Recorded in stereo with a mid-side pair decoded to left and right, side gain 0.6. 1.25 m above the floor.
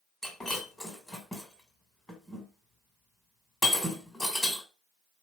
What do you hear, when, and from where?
0.2 s breaking glass: 10° left, 3 m